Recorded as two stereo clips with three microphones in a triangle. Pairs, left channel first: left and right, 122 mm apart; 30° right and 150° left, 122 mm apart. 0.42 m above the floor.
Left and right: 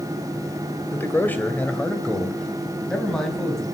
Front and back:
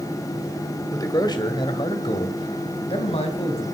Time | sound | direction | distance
0.9 | a man speaking | 20° left | 2 m